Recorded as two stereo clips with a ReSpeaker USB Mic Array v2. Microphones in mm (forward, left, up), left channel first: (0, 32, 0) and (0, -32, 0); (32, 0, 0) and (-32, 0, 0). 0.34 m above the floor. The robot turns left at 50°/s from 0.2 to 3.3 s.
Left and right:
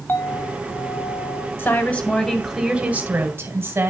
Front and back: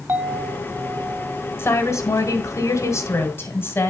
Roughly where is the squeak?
I don't hear a squeak.